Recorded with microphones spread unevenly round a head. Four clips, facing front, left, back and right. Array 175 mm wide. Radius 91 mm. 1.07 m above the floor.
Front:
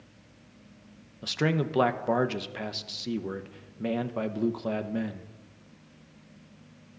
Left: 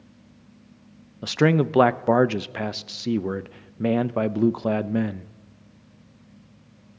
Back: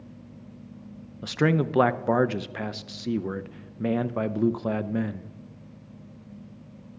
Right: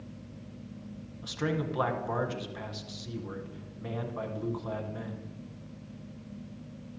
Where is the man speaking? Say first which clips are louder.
Left 12 dB, back 4 dB; 100° left, 0.7 m.